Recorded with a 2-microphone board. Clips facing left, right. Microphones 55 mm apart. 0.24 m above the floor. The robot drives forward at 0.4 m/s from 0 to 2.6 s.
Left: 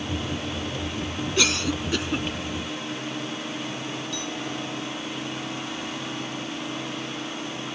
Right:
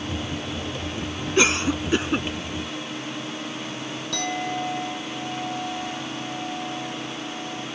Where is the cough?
30° right (ahead or behind); by 2.3 s 25° right (ahead or behind).